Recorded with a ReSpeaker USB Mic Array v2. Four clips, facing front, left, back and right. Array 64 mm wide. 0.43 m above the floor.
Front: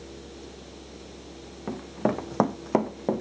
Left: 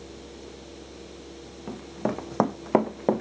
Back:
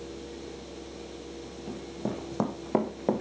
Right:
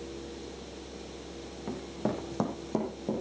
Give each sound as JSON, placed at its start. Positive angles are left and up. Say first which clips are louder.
{"t": 1.7, "sound": "running footsteps", "louder": "left 3 dB, front 8 dB", "azimuth_deg": 5, "distance_m": 1.5}